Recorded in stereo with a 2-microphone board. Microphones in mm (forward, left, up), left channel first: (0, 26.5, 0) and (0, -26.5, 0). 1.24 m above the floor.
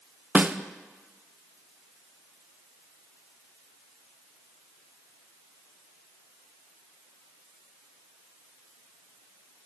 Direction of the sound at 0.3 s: 30° right (ahead or behind).